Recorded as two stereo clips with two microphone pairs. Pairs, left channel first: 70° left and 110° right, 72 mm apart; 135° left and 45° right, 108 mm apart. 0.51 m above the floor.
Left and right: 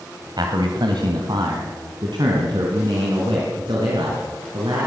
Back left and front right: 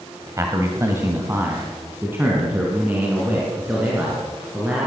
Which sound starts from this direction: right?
A man speaking, at 0.4 s.